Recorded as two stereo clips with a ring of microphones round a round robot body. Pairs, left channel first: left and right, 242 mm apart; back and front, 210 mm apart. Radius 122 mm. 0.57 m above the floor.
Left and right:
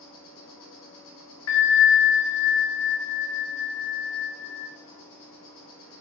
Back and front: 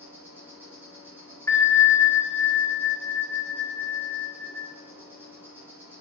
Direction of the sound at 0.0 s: 80° left.